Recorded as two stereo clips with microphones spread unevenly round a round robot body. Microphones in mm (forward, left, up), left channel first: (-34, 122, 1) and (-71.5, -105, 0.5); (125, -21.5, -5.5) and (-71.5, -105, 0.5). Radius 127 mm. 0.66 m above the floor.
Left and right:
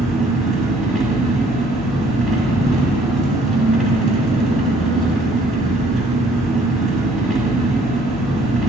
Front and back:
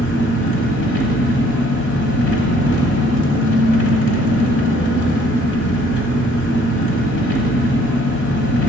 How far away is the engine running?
About 1.3 m.